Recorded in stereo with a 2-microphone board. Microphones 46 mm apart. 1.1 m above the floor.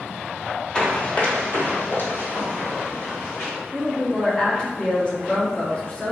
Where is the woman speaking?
25° left (ahead or behind), 1.2 m.